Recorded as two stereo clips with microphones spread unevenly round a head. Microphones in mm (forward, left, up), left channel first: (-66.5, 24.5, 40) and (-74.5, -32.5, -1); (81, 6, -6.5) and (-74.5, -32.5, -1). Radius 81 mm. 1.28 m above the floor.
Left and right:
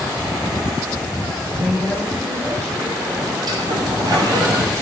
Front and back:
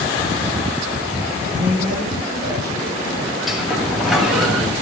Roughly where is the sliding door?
Right.